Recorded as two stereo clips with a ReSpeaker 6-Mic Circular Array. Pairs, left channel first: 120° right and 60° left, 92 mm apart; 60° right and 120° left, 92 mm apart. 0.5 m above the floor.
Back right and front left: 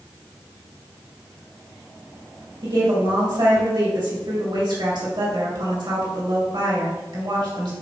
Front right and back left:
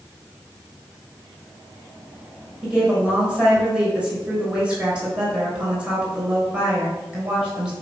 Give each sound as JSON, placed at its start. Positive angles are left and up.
{"t": 2.6, "sound": "a woman speaking", "azimuth_deg": 40, "distance_m": 2.5}